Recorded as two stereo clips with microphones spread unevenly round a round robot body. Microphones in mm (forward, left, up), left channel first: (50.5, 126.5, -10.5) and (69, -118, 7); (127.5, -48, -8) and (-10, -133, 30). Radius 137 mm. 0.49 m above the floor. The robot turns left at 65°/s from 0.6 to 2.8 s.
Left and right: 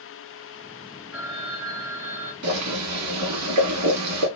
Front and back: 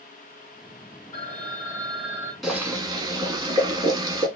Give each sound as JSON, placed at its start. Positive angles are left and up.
{"t": 1.1, "sound": "a phone ringing", "azimuth_deg": 5, "distance_m": 1.8}
{"t": 2.4, "sound": "boiling", "azimuth_deg": -60, "distance_m": 1.3}